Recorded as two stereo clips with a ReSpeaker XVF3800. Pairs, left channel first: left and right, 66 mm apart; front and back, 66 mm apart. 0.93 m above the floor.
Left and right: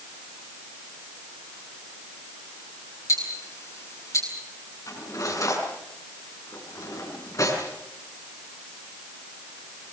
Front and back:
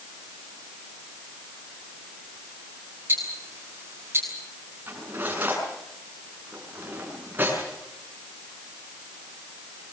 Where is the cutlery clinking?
120° left, 7 m.